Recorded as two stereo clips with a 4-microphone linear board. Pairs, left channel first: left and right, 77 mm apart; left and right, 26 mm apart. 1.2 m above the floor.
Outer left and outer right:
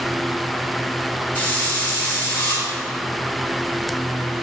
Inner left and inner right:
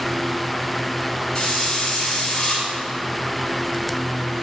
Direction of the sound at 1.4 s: 25° left (ahead or behind).